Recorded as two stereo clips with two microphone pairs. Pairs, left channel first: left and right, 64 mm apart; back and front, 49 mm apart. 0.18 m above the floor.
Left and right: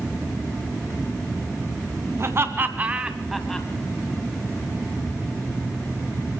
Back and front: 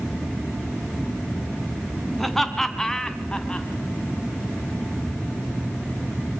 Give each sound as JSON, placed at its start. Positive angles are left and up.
{"t": 2.2, "sound": "laughter", "azimuth_deg": -95, "distance_m": 1.9}